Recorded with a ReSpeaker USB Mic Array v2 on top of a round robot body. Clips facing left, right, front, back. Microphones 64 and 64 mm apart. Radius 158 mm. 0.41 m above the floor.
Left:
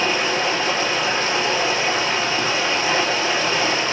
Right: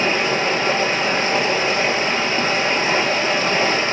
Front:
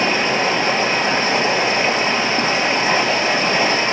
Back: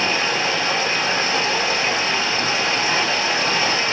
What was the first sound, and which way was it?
Running water, 40° right.